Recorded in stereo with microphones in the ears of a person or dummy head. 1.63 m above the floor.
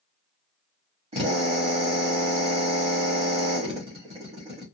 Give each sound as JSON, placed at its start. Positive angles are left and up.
{"t": 1.1, "sound": "a drill", "side_deg": -35, "distance_m": 1.2}